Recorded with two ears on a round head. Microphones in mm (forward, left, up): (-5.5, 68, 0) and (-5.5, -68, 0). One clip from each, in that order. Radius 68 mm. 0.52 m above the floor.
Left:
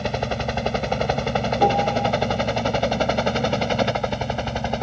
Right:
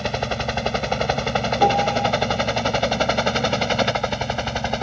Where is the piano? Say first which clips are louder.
Right 1 dB; 35° right (ahead or behind).